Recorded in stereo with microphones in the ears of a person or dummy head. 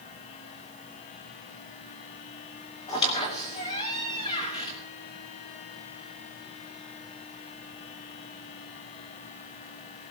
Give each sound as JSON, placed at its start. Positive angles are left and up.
{"t": 2.9, "sound": "a squeak", "side_deg": 30, "distance_m": 2.5}